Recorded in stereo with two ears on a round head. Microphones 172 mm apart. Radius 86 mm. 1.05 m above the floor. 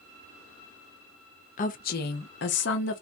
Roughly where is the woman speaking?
Left.